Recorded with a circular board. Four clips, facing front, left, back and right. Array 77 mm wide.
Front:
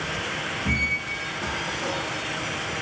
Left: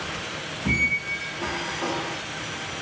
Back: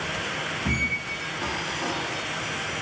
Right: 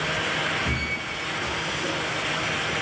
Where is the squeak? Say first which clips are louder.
Left 3 dB, front 2 dB; 120° left, 3 m.